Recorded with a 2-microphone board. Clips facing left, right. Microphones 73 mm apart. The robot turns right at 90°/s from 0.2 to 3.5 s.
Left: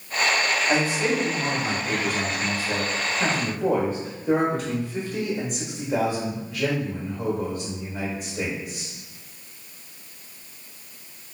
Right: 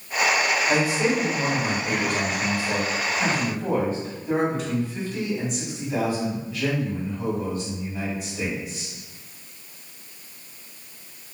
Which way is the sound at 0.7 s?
175° left.